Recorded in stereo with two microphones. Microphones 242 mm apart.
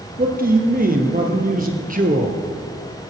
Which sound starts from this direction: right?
A man speaking, at 0.2 s.